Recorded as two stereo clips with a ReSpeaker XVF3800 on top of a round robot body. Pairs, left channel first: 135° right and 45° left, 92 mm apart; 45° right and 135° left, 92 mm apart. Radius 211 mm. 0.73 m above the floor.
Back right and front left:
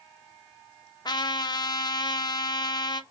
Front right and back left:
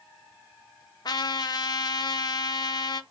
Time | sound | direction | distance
1.1 | a trumpet | 90° right | 0.5 m